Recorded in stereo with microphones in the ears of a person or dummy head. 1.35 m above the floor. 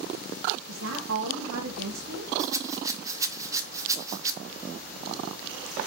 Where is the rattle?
15° right (ahead or behind), 0.9 m.